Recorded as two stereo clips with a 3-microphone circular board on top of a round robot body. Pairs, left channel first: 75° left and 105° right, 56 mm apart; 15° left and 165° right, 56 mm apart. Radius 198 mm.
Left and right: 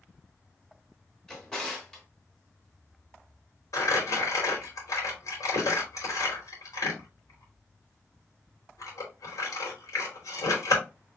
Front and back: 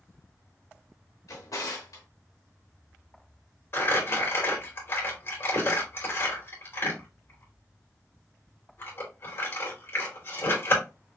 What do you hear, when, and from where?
1.3 s a drawer: straight ahead, 1.6 m
3.7 s crumpling: 60° left, 2.5 m